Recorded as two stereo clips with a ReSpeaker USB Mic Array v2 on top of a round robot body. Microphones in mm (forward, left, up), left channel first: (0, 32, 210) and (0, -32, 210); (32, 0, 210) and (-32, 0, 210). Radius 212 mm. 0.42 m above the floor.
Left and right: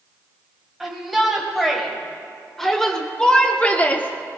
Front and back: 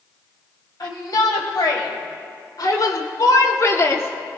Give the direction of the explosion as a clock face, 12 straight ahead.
I don't hear an explosion.